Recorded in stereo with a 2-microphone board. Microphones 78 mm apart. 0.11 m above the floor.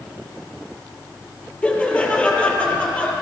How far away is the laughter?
About 2.5 m.